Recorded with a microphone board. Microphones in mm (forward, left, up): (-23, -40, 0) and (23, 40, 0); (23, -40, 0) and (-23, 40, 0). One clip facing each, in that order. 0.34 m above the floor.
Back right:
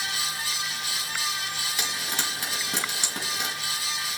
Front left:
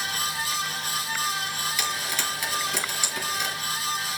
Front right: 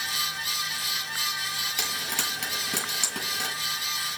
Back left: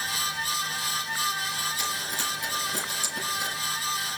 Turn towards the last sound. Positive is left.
turn(degrees=-60)